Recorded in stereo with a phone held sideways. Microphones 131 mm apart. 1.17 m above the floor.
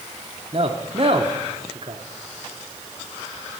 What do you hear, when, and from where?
0.5 s a man speaking: 45° right (ahead or behind), 0.9 m